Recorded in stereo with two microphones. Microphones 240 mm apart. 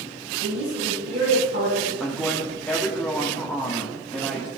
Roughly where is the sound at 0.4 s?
Right.